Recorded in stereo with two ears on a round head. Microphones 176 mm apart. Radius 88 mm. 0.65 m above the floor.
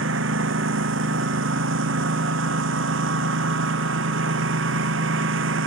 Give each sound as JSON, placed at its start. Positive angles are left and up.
{"t": 0.0, "sound": "a lawn mower", "side_deg": -70}